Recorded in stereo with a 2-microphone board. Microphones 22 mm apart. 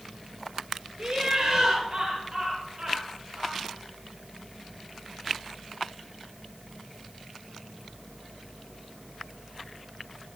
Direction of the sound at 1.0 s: 15° right (ahead or behind).